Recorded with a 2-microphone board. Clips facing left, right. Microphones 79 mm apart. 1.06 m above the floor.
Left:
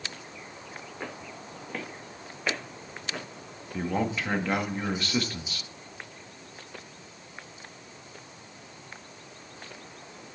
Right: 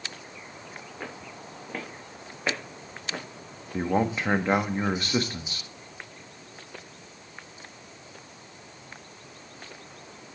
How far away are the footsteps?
About 3.5 m.